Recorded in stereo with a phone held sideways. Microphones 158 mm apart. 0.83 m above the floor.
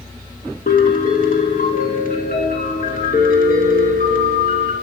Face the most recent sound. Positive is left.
turn(degrees=60)  # may be behind; listen again after turning